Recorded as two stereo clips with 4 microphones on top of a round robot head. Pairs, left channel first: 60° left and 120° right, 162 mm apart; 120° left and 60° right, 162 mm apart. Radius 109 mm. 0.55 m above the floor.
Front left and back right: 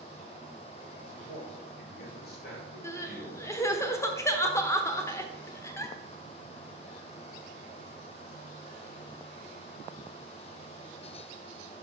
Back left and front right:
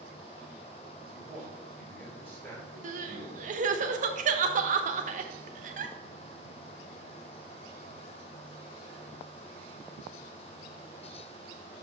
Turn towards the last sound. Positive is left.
turn(degrees=-15)